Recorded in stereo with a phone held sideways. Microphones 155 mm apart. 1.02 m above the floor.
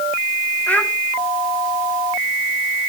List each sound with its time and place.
0.7 s a child speaking: 10° left (ahead or behind), 1.8 m